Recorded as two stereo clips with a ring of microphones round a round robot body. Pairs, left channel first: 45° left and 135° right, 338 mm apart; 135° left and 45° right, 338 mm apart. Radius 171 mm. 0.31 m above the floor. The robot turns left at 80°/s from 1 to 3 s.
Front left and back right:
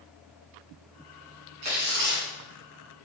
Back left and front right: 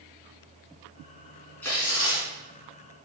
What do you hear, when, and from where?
1.6 s tearing paper: 140° right, 3 m; by 2.3 s 170° left, 3 m